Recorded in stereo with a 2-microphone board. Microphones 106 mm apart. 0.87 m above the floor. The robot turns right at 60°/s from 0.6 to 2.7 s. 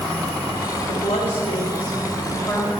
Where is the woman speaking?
60° left, 2.5 m; by 2.7 s 170° left, 2.5 m.